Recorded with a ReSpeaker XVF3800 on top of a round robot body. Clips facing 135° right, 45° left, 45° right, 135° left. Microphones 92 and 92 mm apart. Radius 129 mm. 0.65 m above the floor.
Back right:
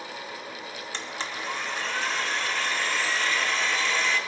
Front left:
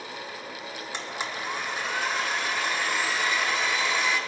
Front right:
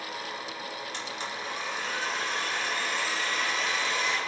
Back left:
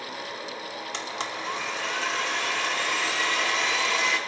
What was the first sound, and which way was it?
A blender, 125° left.